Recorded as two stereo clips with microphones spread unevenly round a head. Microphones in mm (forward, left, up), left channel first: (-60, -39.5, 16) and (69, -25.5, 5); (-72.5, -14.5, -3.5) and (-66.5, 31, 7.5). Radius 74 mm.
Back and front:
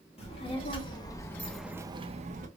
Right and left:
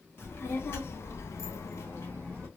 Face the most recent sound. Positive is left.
turn(degrees=-15)